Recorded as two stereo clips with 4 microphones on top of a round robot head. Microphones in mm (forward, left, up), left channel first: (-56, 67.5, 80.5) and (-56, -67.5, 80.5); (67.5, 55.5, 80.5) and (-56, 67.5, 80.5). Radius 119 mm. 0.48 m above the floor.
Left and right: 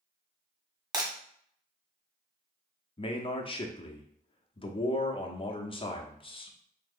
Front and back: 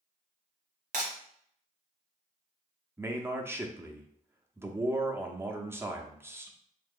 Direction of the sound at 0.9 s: 150° right.